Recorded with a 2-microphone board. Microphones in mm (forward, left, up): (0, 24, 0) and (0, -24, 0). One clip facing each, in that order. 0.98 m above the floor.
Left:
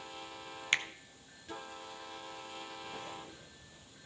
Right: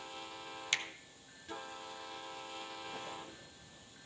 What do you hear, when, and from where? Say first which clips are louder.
0.7 s a finger snap: left 5 dB; 30° left (ahead or behind), 0.5 m